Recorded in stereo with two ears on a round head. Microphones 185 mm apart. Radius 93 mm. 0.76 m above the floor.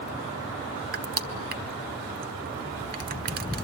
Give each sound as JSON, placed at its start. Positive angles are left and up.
{"t": 0.9, "sound": "crushing", "side_deg": -45, "distance_m": 1.3}